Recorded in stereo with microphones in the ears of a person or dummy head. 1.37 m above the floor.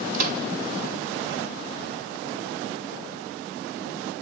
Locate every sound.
0.1 s a microwave: 55° right (ahead or behind), 2.5 m